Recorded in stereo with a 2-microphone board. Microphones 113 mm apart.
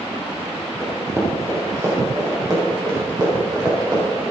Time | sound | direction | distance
0.8 | running footsteps | 25° right (ahead or behind) | 5 m